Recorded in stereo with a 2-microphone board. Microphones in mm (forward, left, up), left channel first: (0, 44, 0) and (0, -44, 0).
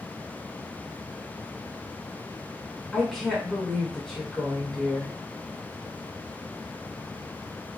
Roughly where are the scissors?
No scissors in this recording.